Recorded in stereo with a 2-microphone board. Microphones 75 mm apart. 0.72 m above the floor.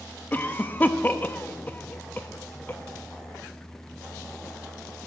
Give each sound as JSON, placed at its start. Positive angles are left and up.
{"t": 0.3, "sound": "a cough", "side_deg": 25, "distance_m": 0.6}